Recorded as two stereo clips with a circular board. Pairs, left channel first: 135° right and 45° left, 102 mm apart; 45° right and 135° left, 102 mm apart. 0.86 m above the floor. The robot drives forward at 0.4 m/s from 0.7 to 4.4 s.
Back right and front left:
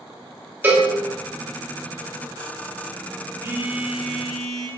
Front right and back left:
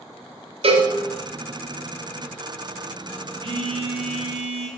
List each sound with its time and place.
0.6 s a cowbell: 115° left, 0.8 m; by 0.9 s 120° left, 0.8 m
3.4 s a phone buzzing: 105° left, 0.5 m; by 4.7 s 135° left, 0.7 m